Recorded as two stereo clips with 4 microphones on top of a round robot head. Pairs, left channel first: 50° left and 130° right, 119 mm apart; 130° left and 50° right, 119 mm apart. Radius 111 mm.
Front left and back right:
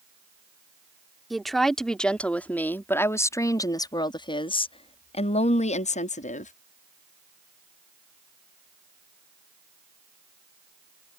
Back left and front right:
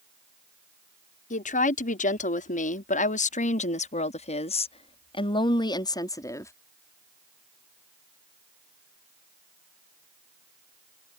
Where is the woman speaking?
140° left; by 6.5 s 60° left.